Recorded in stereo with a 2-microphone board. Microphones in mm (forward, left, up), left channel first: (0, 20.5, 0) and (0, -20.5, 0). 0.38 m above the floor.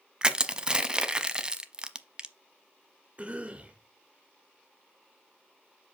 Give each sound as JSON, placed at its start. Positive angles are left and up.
{"t": 0.2, "sound": "crushing", "side_deg": -20, "distance_m": 0.6}
{"t": 3.2, "sound": "a cough", "side_deg": -30, "distance_m": 1.1}